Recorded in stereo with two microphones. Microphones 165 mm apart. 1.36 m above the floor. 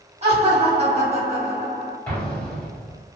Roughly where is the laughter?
Right.